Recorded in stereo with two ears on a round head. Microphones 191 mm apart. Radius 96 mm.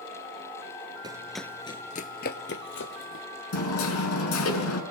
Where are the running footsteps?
20° right (ahead or behind), 0.9 m; by 3.2 s 65° left (ahead or behind), 2.5 m.